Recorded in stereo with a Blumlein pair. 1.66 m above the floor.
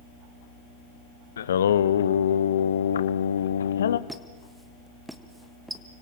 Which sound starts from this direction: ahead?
A squeak, at 4.1 s.